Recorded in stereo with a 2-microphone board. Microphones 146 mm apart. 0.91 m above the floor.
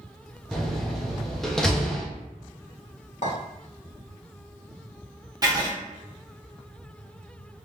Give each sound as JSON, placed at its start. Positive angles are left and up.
{"t": 0.5, "sound": "a door slam", "side_deg": 5, "distance_m": 0.8}
{"t": 3.2, "sound": "a clink", "side_deg": 60, "distance_m": 1.8}
{"t": 5.4, "sound": "writing", "side_deg": -25, "distance_m": 1.2}